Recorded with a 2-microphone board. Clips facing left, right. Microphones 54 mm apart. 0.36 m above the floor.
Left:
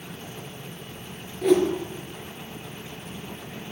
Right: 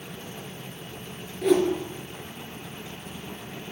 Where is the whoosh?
Centre (ahead or behind), 1.2 m.